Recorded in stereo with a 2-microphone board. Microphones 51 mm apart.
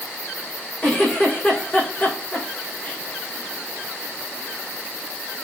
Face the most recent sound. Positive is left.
turn(degrees=20)  # may be behind; listen again after turning